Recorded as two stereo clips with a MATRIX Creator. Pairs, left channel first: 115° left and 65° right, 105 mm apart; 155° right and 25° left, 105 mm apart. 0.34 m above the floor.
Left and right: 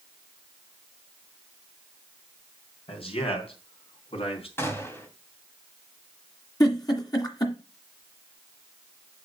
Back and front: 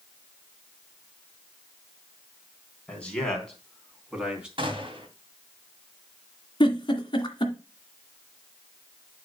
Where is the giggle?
165° left, 1.9 m.